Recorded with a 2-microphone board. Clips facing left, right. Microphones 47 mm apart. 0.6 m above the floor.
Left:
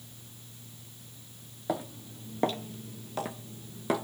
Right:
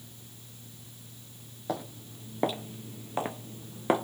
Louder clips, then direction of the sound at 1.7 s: Left 2 dB; 10° left (ahead or behind).